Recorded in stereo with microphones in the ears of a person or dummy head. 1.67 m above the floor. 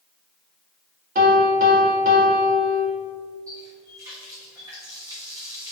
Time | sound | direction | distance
1.1 | a piano | 50° right (ahead or behind) | 1.9 m
3.5 | a running tap | 25° right (ahead or behind) | 2.5 m